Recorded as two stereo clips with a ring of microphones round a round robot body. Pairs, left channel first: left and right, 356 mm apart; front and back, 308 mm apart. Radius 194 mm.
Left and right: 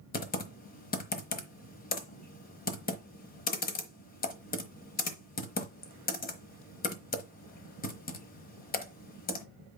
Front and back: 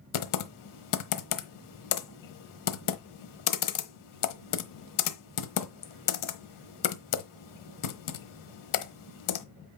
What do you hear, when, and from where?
0.1 s typing on a keyboard: 20° left, 1.1 m